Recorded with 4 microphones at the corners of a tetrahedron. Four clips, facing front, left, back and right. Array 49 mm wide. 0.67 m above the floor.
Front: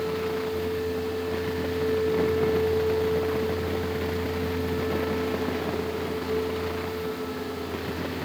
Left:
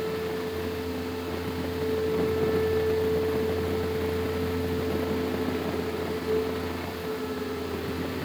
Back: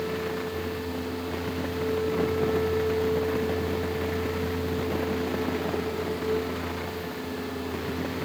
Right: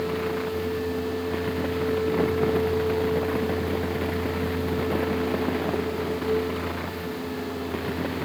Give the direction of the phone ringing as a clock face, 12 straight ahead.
No phone ringing in this recording.